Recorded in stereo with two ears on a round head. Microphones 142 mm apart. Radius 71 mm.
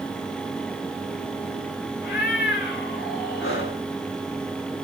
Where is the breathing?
70° left (ahead or behind), 7 m.